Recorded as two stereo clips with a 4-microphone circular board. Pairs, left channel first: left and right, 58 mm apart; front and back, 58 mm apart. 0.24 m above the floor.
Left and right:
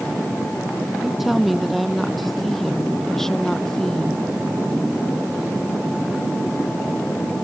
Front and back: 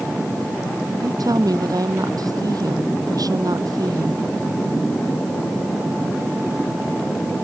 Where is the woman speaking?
Straight behind; by 4.2 s 170° left.